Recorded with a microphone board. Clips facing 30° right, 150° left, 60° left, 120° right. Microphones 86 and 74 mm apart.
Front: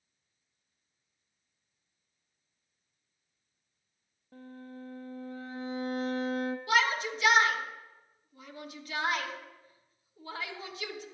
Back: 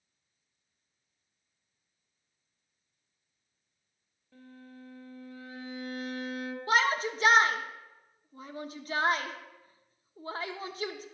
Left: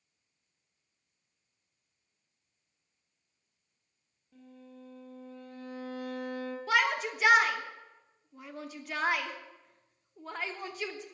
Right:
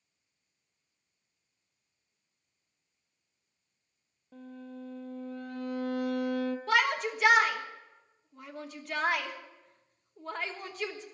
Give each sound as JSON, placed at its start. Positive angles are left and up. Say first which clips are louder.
{"t": 4.3, "sound": "a violin", "louder": "front 5 dB, right 7 dB", "azimuth_deg": -90, "distance_m": 0.8}
{"t": 6.7, "sound": "a shout", "louder": "back 2 dB, even", "azimuth_deg": 145, "distance_m": 0.9}